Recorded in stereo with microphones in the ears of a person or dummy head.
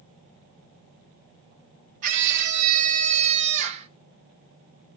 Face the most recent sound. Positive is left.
turn(degrees=-40)  # may be behind; listen again after turning